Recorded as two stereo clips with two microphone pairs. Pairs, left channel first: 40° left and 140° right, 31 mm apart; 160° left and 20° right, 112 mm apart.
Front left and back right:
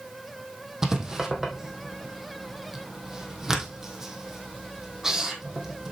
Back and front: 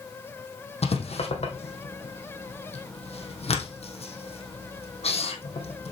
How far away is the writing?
About 2 m.